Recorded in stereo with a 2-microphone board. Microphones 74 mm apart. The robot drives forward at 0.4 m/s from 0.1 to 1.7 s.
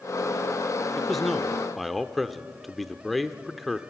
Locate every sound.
1.0 s a man speaking: centre (ahead or behind), 0.7 m